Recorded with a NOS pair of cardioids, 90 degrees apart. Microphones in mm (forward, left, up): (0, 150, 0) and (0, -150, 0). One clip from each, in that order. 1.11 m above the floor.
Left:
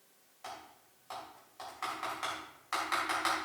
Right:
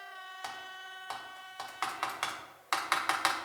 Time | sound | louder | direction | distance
0.4 | typing on a keyboard | right 3 dB | 60° right | 2.5 m